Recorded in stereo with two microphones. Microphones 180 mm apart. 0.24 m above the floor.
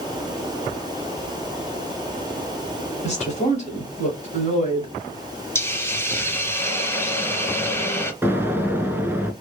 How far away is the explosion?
About 0.6 m.